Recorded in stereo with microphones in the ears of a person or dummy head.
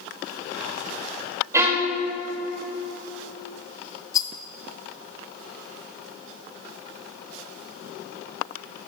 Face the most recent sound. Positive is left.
turn(degrees=25)  # may be behind; listen again after turning